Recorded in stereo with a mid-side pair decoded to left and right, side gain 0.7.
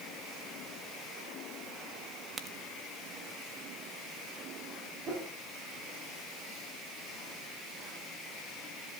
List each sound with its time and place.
2.4 s a crack: 30° right, 1.3 m
5.1 s a whoosh: 40° right, 4 m